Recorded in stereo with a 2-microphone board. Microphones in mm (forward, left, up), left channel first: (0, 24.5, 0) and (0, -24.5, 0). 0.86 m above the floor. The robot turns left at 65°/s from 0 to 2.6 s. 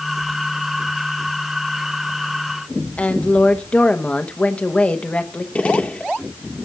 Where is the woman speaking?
30° left (ahead or behind), 0.9 m.